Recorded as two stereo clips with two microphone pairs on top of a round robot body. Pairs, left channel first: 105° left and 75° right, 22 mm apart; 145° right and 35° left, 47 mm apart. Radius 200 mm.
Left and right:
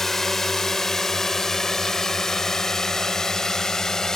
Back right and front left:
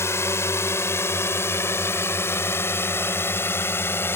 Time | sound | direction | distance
0.0 | a drone | straight behind | ?